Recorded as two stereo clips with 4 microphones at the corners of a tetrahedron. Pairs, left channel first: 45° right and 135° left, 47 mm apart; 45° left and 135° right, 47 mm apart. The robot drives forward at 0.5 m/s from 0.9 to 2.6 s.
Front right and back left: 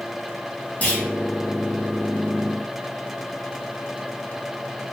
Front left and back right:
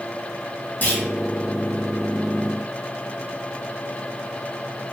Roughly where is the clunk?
Ahead.